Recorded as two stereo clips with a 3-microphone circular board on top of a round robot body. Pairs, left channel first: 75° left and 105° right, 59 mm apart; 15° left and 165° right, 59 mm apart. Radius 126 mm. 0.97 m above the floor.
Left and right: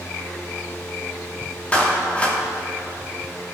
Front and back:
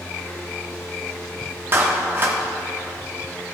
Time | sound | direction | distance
1.7 | a clap | 145° left | 2.0 m